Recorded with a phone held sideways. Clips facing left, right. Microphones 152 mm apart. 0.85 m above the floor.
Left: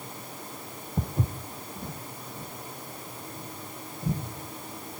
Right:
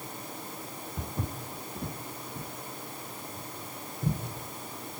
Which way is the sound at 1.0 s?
30° left (ahead or behind).